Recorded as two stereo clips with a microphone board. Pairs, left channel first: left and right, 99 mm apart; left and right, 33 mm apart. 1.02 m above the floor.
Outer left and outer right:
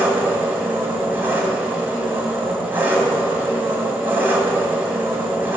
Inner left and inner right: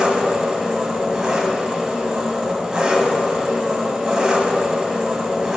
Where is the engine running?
20° right (ahead or behind), 2 m.